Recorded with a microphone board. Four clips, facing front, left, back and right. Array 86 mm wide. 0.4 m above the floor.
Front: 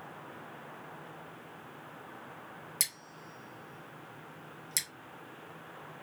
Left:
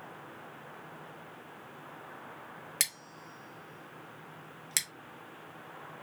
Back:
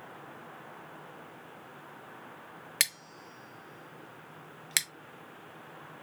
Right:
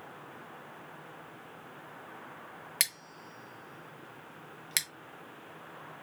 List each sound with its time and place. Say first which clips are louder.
2.8 s scissors: right 1 dB, back 6 dB; 170° right, 0.7 m